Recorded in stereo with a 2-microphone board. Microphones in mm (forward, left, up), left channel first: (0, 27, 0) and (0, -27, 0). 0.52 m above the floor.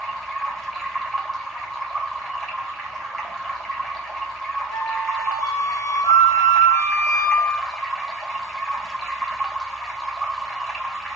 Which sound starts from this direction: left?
A flute, at 4.7 s.